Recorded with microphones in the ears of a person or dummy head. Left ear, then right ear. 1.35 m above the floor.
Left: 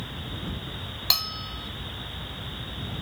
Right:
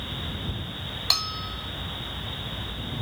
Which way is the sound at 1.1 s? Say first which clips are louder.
Even; 15° left (ahead or behind).